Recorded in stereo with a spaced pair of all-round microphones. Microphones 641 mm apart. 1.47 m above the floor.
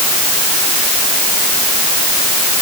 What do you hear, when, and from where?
Only background noise.